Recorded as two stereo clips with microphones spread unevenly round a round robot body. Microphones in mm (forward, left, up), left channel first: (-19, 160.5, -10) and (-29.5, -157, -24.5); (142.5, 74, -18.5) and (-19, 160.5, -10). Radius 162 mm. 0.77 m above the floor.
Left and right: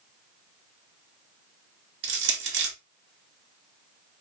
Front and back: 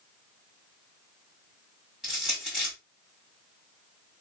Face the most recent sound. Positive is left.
turn(degrees=-120)